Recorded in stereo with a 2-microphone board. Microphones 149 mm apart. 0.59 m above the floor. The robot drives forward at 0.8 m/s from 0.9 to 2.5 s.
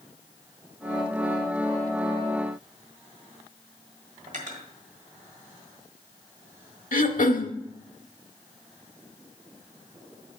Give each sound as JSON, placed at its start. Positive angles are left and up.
{"t": 4.3, "sound": "cutlery clinking", "side_deg": -60, "distance_m": 1.5}
{"t": 6.9, "sound": "throat clearing", "side_deg": 65, "distance_m": 0.6}